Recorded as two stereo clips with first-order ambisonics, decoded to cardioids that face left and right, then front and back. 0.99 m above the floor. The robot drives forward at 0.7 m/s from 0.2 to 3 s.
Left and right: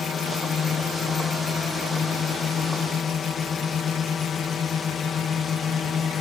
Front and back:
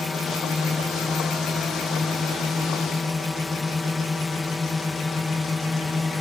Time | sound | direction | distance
0.0 | a drone | 65° left | ?